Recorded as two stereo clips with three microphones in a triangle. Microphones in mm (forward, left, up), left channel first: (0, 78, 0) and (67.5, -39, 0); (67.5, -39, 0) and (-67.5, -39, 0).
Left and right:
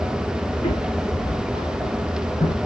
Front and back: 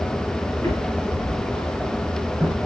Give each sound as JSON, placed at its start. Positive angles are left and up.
{"t": 0.5, "sound": "footsteps", "azimuth_deg": 75, "distance_m": 5.5}